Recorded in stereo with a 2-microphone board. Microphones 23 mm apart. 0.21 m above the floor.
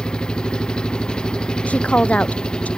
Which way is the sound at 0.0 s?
35° left (ahead or behind).